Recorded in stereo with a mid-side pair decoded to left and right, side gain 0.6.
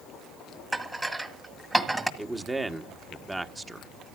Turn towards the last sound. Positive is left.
turn(degrees=-15)